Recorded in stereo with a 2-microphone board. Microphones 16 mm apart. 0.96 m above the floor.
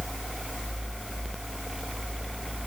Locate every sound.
Only background noise.